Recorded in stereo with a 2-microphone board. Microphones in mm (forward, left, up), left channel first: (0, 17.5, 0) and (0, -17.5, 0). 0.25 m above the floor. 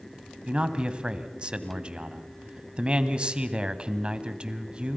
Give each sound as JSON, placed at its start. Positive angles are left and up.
{"t": 0.5, "sound": "a man speaking", "side_deg": -30, "distance_m": 1.5}